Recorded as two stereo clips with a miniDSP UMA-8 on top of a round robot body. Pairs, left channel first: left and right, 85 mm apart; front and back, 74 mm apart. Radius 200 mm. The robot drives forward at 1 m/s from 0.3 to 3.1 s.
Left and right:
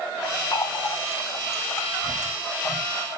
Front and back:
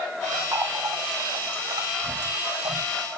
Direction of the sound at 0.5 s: 130° left.